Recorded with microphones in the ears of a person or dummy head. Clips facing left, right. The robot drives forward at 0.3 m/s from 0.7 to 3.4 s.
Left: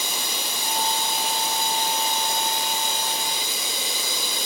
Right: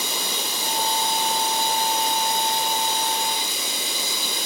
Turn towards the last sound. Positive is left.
turn(degrees=40)  # may be behind; listen again after turning